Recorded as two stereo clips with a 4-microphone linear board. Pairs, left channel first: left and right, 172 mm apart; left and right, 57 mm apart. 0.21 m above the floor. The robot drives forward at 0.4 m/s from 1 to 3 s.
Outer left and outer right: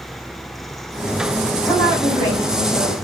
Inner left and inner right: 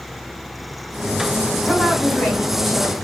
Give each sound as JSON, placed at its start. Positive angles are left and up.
{"t": 1.6, "sound": "a woman speaking", "side_deg": 20, "distance_m": 1.3}